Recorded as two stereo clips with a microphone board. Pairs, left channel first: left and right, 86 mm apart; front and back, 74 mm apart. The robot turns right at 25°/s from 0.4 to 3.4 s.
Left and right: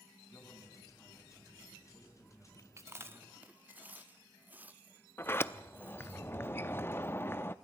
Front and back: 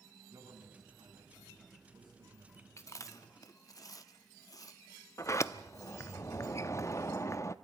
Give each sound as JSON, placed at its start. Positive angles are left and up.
{"t": 0.3, "sound": "a man speaking", "azimuth_deg": 150, "distance_m": 8.0}
{"t": 2.8, "sound": "chewing", "azimuth_deg": -40, "distance_m": 0.8}
{"t": 5.2, "sound": "a sliding door", "azimuth_deg": 30, "distance_m": 0.6}